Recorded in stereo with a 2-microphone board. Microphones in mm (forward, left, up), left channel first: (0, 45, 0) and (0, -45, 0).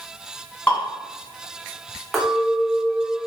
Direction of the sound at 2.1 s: Centre (ahead or behind).